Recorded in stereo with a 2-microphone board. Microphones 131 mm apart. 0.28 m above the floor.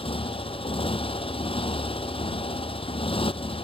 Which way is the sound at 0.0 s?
40° left (ahead or behind).